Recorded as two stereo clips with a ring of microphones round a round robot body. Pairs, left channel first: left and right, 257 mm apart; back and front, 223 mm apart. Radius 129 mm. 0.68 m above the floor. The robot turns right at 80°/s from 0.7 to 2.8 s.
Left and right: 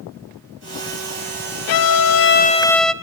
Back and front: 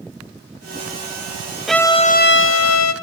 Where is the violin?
90° left, 1.1 m; by 2.9 s straight behind, 1.1 m.